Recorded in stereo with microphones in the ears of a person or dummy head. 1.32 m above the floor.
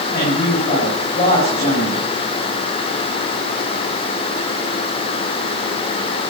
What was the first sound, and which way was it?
A man speaking, 30° left (ahead or behind).